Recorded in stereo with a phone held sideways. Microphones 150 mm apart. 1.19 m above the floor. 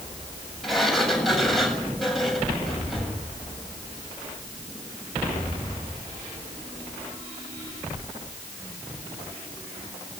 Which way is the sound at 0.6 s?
Centre (ahead or behind).